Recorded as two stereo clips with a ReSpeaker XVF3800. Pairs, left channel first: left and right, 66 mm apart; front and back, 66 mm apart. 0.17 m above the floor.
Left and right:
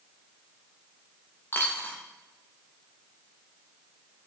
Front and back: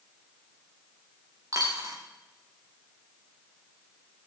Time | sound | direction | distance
1.5 | a dropped coin | 145° left | 5 m